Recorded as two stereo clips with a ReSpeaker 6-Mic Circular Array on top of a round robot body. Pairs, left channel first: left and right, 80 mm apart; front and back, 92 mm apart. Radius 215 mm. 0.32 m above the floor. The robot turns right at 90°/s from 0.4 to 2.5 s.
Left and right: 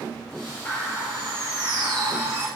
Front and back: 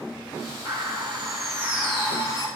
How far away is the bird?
About 4.5 m.